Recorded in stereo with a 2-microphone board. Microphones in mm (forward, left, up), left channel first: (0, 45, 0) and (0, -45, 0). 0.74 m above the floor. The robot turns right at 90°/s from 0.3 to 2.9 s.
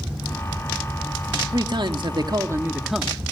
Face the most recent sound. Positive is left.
turn(degrees=-5)